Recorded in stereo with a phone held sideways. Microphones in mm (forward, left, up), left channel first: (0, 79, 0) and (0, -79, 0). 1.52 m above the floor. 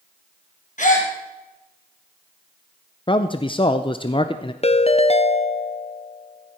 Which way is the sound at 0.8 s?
55° left (ahead or behind).